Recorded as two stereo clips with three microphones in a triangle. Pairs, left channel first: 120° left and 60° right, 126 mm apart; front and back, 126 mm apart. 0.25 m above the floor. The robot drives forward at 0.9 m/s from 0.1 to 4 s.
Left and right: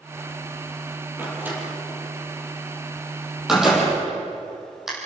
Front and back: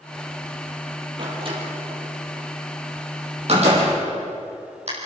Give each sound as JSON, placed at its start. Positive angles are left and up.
{"t": 1.2, "sound": "a door slam", "azimuth_deg": -135, "distance_m": 5.5}